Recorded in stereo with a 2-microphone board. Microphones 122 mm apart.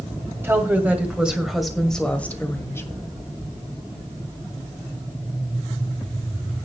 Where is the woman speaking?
20° right (ahead or behind), 2 m; by 3.1 s 25° left (ahead or behind), 1.7 m.